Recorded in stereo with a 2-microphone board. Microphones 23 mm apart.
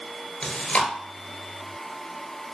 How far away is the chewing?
About 0.9 m.